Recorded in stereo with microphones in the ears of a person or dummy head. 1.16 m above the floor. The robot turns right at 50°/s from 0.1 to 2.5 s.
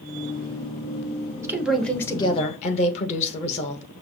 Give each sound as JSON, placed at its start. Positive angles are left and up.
{"t": 1.4, "sound": "a woman speaking", "azimuth_deg": -15, "distance_m": 1.2}